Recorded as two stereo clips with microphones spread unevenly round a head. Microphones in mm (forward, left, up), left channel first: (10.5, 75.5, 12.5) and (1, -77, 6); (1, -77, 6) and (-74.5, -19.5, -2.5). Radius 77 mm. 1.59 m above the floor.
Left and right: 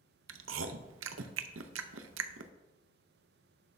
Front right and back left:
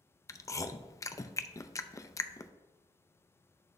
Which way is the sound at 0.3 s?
95° right.